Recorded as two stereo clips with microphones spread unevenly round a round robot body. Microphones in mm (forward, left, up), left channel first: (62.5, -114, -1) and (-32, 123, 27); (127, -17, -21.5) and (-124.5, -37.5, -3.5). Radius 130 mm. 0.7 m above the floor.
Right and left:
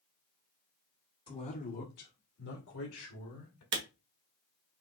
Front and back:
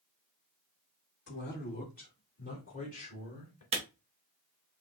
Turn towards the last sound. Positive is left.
turn(degrees=125)